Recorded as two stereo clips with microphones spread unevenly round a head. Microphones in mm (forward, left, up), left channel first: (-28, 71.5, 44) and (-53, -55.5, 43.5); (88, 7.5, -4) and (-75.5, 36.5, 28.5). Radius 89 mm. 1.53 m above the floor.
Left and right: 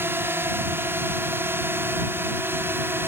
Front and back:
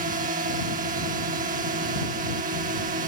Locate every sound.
0.0 s a drone: 165° right